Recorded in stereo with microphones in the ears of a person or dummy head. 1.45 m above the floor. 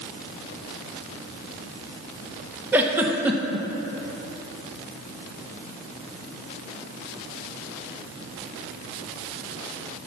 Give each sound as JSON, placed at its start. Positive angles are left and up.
{"t": 2.7, "sound": "a giggle", "side_deg": -10, "distance_m": 0.9}